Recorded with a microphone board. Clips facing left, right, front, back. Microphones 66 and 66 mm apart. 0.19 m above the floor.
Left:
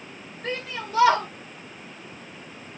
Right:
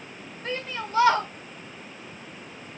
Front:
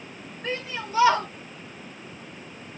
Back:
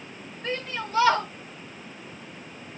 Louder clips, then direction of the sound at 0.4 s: Even, even; 75° left.